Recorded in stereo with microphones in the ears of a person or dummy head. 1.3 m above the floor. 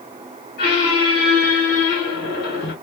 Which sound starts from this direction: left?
A squeak, at 0.6 s.